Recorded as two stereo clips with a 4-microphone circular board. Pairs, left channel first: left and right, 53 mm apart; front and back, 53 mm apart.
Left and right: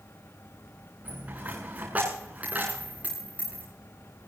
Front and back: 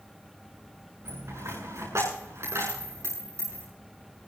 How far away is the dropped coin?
About 8.5 m.